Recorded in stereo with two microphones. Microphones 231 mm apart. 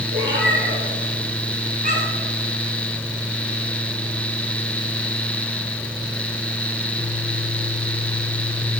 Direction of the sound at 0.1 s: 55° right (ahead or behind).